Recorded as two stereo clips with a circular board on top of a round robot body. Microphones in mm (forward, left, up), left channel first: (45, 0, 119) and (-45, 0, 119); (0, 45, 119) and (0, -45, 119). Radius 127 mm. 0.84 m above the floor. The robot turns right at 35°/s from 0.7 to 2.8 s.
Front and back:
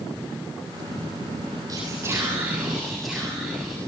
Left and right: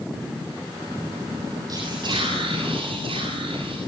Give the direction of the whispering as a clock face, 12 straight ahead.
4 o'clock.